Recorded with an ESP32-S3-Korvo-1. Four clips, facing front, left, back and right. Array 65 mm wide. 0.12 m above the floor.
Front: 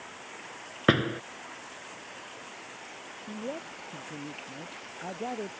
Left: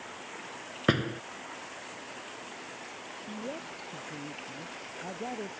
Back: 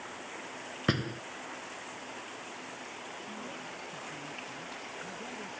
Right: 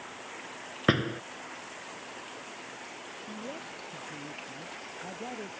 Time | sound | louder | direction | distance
0.9 | a door slam | right 1 dB, front 8 dB | 10° right | ?
3.3 | a man speaking | left 2 dB, front 5 dB | 15° left | ?